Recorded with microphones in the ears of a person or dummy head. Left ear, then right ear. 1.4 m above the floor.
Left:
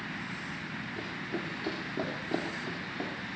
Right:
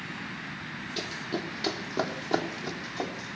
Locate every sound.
1.0 s running footsteps: 65° right (ahead or behind), 3.5 m; by 3.4 s 45° right (ahead or behind), 4.5 m